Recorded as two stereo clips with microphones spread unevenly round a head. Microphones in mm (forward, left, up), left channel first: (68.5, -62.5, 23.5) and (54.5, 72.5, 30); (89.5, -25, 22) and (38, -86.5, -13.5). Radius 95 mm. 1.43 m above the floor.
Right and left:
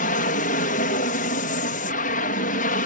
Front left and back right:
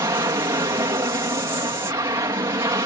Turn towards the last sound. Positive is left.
turn(degrees=-95)